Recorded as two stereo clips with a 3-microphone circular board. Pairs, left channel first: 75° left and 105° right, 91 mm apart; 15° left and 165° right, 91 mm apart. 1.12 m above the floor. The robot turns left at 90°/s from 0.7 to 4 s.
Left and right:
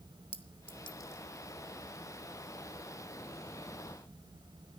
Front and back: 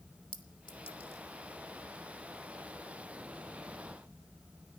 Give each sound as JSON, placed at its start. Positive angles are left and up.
{"t": 0.3, "sound": "a clink", "azimuth_deg": 50, "distance_m": 1.1}